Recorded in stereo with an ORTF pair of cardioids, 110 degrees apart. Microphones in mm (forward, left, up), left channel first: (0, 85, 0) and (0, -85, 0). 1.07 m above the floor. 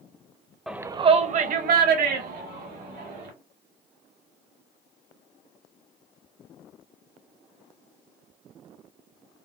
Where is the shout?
Straight ahead, 0.6 m; by 3.3 s 80° right, 2.5 m.